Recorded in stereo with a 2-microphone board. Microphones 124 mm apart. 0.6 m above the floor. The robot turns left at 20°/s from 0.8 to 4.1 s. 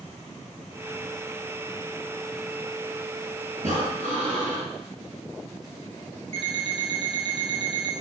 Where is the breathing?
60° right (ahead or behind), 4.5 m; by 4.7 s 70° right (ahead or behind), 4.5 m.